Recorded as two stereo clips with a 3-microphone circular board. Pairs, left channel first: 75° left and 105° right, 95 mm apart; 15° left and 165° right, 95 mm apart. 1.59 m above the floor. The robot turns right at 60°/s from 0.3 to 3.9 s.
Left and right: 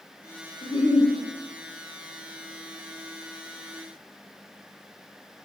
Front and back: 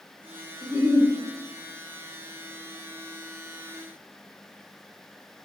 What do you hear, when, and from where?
0.6 s a giggle: 110° left, 0.9 m; by 1.1 s 140° left, 0.9 m